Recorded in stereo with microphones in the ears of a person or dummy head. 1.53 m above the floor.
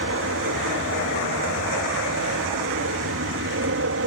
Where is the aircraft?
70° right (ahead or behind).